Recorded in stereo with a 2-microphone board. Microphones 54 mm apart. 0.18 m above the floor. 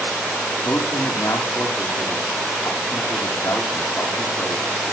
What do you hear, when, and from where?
0.7 s a man speaking: 60° left (ahead or behind), 5.5 m